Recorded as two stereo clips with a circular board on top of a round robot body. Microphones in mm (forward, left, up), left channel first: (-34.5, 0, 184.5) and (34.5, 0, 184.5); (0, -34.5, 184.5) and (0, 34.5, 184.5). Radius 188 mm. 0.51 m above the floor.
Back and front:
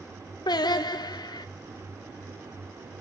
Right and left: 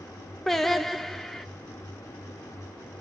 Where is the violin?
No violin in this recording.